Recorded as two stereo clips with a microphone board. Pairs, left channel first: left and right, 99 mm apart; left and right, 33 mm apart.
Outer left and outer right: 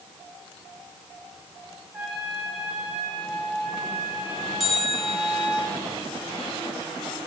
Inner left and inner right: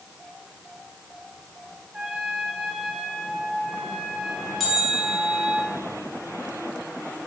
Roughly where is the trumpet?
Centre.